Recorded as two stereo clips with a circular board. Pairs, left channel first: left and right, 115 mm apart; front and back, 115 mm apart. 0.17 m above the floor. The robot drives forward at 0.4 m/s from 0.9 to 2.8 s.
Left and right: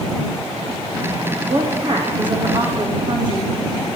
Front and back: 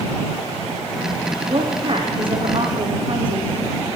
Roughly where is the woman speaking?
Behind right.